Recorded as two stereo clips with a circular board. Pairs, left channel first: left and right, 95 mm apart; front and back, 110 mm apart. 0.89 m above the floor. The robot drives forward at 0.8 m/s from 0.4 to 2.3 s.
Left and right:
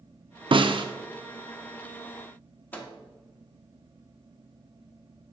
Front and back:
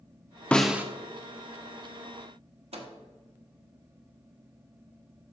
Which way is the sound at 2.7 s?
160° left.